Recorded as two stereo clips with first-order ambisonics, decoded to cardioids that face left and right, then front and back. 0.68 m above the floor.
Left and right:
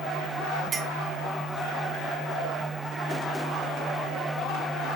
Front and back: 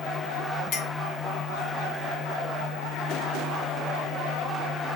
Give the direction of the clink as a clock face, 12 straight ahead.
1 o'clock.